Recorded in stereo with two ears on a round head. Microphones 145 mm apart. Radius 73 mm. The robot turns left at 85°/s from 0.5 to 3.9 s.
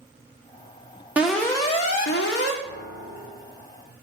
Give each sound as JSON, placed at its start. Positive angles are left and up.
{"t": 1.2, "sound": "an alarm", "azimuth_deg": -170, "distance_m": 1.9}
{"t": 2.6, "sound": "a piano", "azimuth_deg": 90, "distance_m": 2.5}